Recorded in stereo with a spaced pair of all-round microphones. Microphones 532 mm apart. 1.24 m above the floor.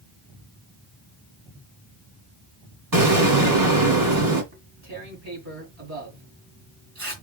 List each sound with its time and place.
2.9 s an explosion: 35° right (ahead or behind), 2.0 m
4.5 s tearing paper: 70° right (ahead or behind), 2.5 m